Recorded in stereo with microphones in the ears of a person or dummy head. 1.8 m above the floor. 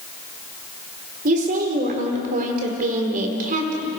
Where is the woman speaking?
50° right (ahead or behind), 4.5 m.